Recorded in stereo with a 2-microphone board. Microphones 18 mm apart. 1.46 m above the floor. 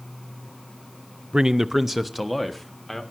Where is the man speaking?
50° right (ahead or behind), 0.5 m; by 3.0 s centre (ahead or behind), 1.9 m.